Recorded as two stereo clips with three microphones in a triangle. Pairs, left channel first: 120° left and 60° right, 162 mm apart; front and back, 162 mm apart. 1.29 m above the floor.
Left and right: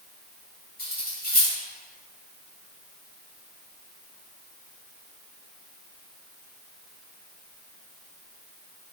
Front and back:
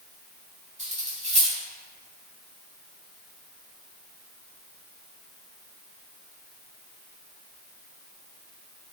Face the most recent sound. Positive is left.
turn(degrees=135)